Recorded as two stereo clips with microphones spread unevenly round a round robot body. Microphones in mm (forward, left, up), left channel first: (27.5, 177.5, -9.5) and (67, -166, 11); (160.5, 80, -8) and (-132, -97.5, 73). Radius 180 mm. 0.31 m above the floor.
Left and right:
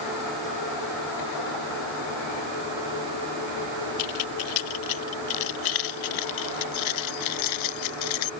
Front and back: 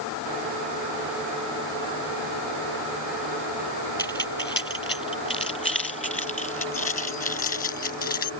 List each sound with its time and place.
4.0 s keys jangling: 110° left; by 8.3 s 100° left